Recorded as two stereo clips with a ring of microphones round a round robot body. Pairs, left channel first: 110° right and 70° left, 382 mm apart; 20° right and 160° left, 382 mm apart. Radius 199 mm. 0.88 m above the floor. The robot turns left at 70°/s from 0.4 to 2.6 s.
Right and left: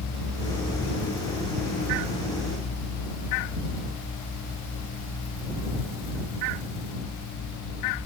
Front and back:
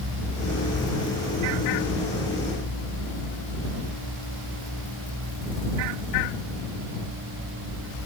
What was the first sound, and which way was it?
Only background noise.